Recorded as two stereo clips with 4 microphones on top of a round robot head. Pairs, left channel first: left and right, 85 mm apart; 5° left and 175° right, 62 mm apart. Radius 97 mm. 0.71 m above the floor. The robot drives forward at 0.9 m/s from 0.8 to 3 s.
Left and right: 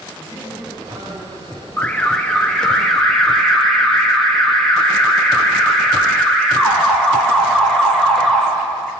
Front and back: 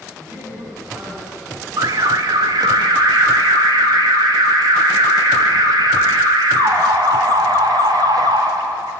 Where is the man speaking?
130° right, 7 m; by 1.7 s 135° right, 7.5 m.